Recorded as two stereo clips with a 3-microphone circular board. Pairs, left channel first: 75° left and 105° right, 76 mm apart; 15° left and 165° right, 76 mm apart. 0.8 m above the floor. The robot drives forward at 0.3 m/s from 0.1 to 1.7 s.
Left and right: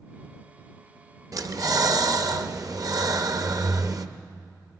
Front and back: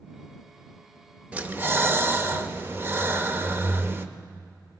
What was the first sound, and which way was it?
Breathing, 100° right.